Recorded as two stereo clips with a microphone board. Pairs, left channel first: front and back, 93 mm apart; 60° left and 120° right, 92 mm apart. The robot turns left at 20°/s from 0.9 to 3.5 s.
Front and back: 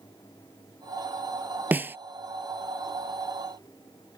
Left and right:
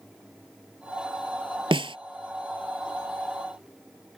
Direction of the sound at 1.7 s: 110° right.